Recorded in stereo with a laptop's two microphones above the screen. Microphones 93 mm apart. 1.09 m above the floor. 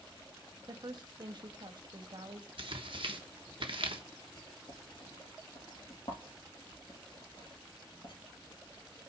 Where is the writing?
60° left (ahead or behind), 3.5 m.